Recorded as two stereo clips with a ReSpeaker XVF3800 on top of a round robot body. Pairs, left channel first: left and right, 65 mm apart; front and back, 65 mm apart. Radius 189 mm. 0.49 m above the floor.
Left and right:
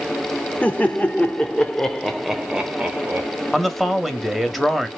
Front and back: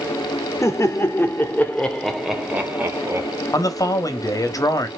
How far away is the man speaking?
About 1.1 m.